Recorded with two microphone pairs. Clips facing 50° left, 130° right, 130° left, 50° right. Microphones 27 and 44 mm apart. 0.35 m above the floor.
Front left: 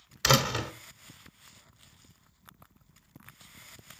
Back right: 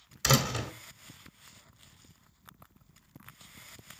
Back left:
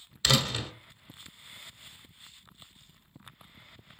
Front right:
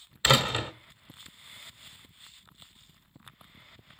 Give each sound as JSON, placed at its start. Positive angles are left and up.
{"t": 0.2, "sound": "a door slam", "azimuth_deg": 0, "distance_m": 1.2}